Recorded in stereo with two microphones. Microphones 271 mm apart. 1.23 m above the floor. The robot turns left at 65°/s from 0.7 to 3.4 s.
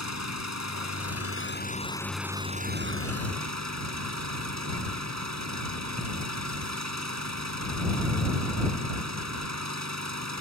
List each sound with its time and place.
0.0 s an engine running: 95° left; by 10.4 s 80° right